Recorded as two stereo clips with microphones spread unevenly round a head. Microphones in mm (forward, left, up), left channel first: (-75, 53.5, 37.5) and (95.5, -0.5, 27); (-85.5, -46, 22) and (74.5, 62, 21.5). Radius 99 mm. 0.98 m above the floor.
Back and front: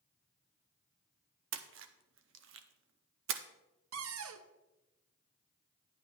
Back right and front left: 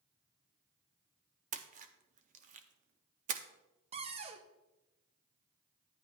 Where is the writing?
No writing in this recording.